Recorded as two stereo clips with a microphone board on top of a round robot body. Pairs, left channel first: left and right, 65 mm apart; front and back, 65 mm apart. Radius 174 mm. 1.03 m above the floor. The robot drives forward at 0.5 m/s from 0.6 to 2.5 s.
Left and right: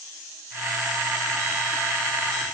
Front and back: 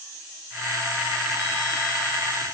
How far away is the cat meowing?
No cat meowing in this recording.